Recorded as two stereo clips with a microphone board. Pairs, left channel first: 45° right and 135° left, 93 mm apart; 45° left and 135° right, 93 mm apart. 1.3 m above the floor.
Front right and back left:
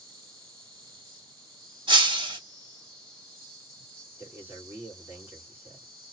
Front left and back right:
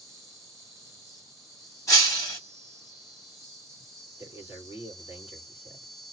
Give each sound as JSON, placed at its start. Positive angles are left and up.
{"t": 0.0, "sound": "an insect", "azimuth_deg": 90, "distance_m": 2.0}
{"t": 1.9, "sound": "breaking glass", "azimuth_deg": 100, "distance_m": 2.0}
{"t": 4.2, "sound": "a man speaking", "azimuth_deg": 65, "distance_m": 2.0}